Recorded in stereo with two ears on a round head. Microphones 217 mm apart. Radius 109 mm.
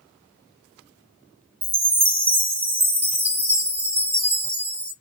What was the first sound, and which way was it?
A chime, 25° right (ahead or behind).